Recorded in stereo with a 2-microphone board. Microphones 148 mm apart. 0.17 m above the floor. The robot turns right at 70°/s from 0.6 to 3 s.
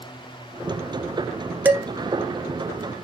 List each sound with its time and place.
1.6 s dishes clattering: 10° right (ahead or behind), 1.5 m; by 1.9 s 25° right (ahead or behind), 1.5 m